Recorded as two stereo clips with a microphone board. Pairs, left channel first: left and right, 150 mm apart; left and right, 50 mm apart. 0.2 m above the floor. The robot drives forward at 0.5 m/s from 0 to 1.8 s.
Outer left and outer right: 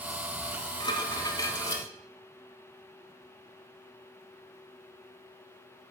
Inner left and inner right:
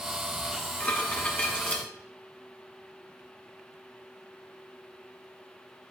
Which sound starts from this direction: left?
Dishes clattering, at 0.5 s.